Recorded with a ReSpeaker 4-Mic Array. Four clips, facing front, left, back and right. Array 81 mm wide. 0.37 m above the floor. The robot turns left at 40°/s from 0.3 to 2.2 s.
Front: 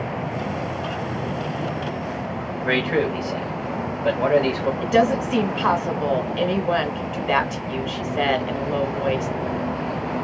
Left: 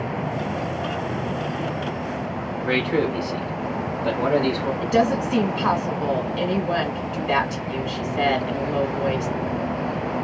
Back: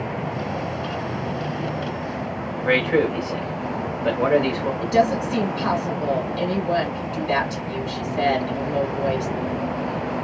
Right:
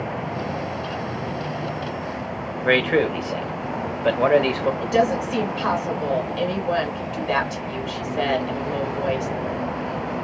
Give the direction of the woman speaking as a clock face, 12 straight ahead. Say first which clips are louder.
Left 2 dB, front 1 dB; 12 o'clock.